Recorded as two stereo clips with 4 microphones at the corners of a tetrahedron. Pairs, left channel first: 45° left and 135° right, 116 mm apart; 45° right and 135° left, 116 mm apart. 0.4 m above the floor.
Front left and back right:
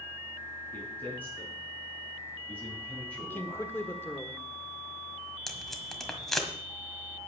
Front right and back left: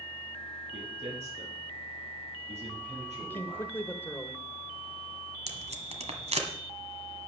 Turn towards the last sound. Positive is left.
turn(degrees=135)